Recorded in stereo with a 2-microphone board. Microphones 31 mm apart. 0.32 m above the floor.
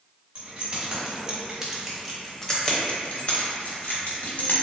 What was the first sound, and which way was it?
Keys jangling, 35° right (ahead or behind).